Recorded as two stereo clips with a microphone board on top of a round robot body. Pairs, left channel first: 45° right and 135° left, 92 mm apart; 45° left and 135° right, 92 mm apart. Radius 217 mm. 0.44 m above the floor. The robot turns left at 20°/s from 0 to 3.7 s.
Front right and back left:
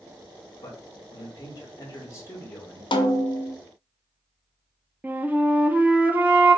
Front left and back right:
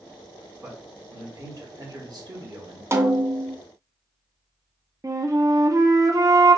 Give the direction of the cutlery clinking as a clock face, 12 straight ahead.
I don't hear cutlery clinking.